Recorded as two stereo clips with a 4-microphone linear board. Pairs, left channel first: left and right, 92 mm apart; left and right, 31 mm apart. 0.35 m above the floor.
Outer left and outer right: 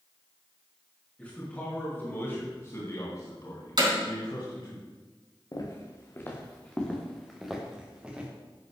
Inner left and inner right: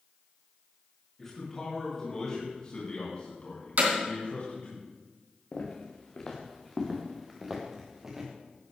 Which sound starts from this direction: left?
Footsteps, at 5.5 s.